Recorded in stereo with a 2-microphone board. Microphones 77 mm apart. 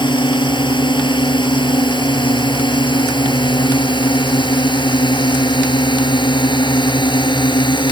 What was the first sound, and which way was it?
A drone, 70° left (ahead or behind).